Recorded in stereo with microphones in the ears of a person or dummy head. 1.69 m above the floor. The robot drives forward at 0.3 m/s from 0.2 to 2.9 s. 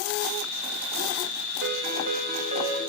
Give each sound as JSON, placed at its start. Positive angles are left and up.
{"t": 1.6, "sound": "a ringtone", "side_deg": -50, "distance_m": 1.6}